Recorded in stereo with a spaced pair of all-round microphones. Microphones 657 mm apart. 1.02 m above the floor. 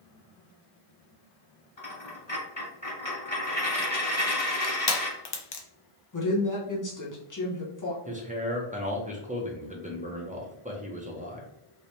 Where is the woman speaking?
30° left (ahead or behind), 1.0 m.